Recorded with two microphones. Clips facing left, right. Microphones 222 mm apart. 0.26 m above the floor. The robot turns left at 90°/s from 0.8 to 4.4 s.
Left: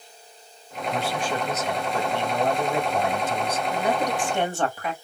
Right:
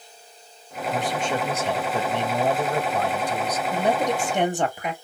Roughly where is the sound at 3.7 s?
Right.